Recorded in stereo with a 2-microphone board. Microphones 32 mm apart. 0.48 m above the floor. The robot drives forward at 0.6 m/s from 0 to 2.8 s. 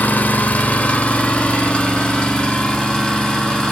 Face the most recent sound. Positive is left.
turn(degrees=25)  # may be behind; listen again after turning